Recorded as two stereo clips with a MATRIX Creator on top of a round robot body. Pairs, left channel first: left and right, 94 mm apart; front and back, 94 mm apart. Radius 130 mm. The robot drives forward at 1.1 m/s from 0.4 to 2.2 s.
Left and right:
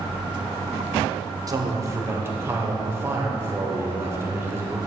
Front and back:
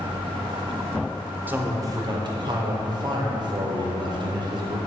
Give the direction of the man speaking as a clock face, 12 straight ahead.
4 o'clock.